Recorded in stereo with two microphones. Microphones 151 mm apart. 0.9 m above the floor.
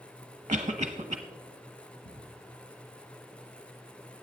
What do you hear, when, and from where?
0.5 s a cough: 35° right (ahead or behind), 0.9 m
2.0 s ticking: 80° left, 5 m